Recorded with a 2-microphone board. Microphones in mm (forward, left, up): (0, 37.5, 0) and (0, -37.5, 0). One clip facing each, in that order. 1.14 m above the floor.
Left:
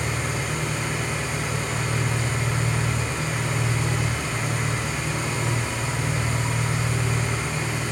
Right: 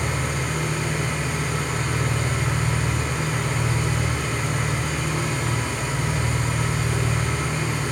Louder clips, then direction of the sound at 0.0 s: Right 1 dB; 50° right (ahead or behind).